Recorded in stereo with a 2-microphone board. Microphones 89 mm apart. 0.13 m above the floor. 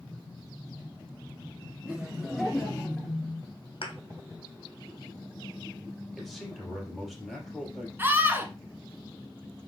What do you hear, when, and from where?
1.9 s laughter: 15° right (ahead or behind), 1.1 m; by 3.1 s 15° left (ahead or behind), 1.7 m
3.8 s a thud: 80° left, 1.6 m
6.2 s a man speaking: centre (ahead or behind), 3.5 m
8.0 s a scream: 20° right (ahead or behind), 1.2 m